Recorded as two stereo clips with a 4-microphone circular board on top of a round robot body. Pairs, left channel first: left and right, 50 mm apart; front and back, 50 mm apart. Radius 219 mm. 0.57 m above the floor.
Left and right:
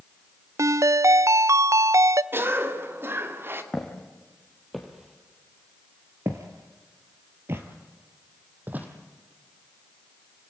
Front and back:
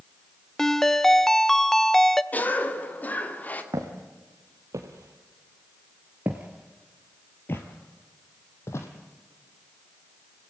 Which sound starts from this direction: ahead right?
A cough, at 2.3 s.